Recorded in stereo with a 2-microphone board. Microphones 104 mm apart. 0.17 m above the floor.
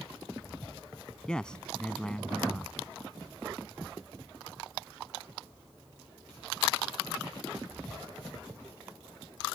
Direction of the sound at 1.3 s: 10° left (ahead or behind).